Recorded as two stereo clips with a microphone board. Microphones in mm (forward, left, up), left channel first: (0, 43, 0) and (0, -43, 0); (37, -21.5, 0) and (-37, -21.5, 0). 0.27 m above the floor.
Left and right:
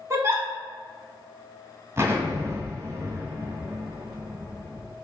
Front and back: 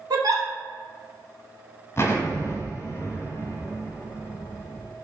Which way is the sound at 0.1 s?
150° right.